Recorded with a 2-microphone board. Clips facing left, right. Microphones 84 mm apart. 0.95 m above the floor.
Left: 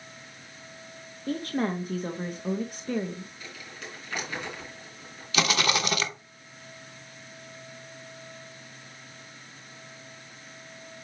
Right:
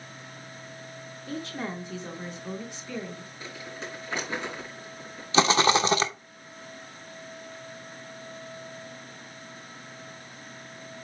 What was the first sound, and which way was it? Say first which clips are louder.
A woman speaking: left 6 dB; 50° left (ahead or behind).